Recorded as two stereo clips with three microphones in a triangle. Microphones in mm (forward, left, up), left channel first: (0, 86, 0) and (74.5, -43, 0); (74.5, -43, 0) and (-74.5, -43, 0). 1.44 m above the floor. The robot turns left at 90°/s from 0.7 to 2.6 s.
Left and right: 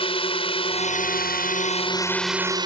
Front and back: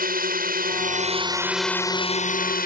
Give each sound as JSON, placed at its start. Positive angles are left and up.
{"t": 0.0, "sound": "a drone", "azimuth_deg": 170}